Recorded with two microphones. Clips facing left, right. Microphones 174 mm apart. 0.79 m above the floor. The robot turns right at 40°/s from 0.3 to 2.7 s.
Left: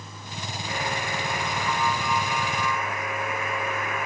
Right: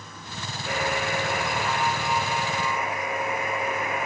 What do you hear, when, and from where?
0.7 s a buzzer: 105° right, 3.5 m; by 4.1 s 25° right, 3.5 m